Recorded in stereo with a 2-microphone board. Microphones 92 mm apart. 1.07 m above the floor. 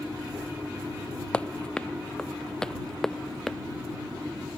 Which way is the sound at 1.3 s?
15° left (ahead or behind).